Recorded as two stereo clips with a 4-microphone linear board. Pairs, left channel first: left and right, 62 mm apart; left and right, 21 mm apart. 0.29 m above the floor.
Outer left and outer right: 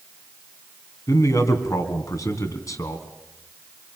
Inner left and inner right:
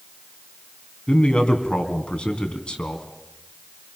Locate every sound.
1.1 s a man speaking: 65° left (ahead or behind), 3 m